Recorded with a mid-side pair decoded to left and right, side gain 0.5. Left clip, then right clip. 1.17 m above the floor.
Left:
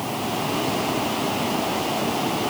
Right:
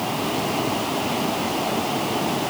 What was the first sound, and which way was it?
Only background noise.